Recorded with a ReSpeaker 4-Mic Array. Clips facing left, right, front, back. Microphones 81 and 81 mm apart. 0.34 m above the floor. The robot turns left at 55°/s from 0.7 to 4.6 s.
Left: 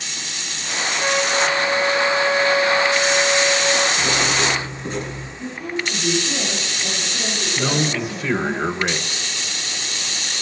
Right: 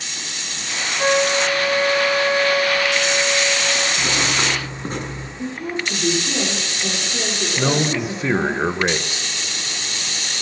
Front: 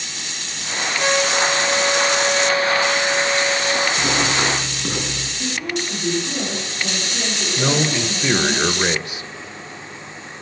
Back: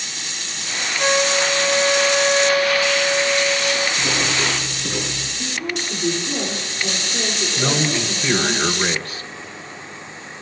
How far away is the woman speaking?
About 8.5 m.